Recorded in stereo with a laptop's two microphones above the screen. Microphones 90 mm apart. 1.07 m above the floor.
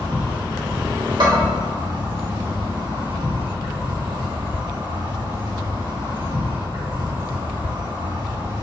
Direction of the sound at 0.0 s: 60° right (ahead or behind).